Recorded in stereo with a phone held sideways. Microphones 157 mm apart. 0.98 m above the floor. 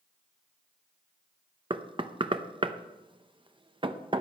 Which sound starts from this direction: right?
Knocking, at 1.7 s.